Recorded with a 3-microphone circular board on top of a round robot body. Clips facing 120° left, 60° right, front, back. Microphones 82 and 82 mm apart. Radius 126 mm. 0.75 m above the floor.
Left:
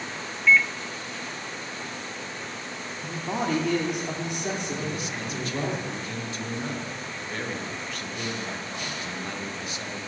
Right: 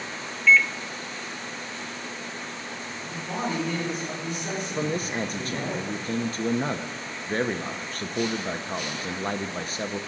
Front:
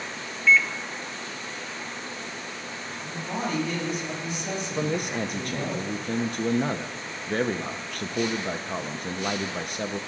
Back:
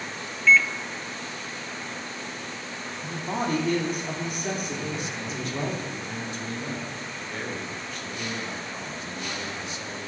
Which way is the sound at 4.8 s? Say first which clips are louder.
Right 4 dB, front 5 dB; 15° right.